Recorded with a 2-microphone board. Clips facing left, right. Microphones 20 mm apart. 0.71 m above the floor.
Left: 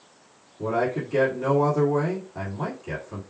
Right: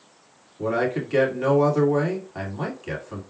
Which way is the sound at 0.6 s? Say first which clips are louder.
Right 1 dB; 50° right (ahead or behind).